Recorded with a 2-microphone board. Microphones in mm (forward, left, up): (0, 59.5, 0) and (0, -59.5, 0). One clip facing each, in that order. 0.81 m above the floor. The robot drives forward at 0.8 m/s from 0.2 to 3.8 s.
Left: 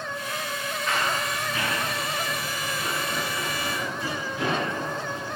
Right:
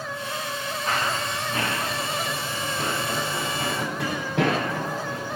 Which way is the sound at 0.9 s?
35° right (ahead or behind).